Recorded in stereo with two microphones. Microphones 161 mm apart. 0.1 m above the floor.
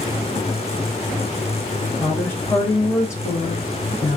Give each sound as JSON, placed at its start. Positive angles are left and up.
{"t": 2.0, "sound": "a woman speaking", "side_deg": 10, "distance_m": 1.4}